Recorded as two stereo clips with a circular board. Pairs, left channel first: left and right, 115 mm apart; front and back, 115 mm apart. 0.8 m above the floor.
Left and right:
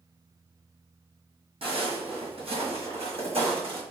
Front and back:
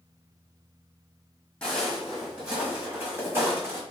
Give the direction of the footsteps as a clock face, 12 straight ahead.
3 o'clock.